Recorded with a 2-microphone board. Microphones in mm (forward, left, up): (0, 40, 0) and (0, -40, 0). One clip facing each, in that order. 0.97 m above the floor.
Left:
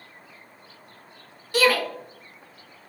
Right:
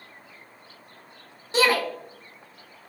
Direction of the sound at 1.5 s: 20° right (ahead or behind).